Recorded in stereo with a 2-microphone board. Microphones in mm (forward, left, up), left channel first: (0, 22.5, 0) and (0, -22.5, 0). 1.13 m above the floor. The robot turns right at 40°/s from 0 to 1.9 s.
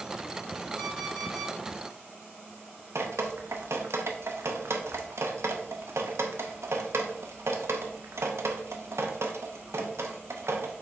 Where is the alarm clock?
10° right, 1.6 m; by 1.5 s 20° left, 1.6 m.